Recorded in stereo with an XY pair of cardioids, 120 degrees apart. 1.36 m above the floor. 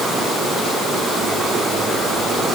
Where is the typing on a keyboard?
I don't hear typing on a keyboard.